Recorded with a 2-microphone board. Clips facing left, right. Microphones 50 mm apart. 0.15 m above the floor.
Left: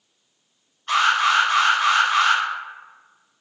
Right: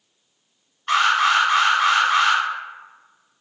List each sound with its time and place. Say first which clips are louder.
0.9 s an alarm: right 1 dB; 35° right (ahead or behind), 1.4 m